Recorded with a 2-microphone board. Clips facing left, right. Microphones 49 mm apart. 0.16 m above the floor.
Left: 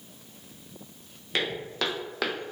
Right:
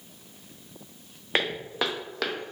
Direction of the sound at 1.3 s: 35° right (ahead or behind).